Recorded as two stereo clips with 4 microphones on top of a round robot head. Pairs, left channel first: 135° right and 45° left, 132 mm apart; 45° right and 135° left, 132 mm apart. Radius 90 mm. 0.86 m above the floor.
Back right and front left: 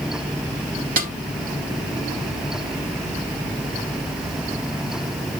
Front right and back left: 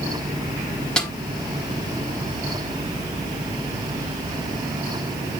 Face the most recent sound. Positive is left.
turn(degrees=40)